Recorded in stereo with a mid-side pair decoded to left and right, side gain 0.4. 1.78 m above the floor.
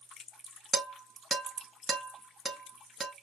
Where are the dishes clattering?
35° right, 2.5 m.